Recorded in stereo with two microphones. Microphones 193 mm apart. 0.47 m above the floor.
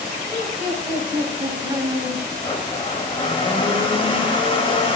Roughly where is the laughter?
Right.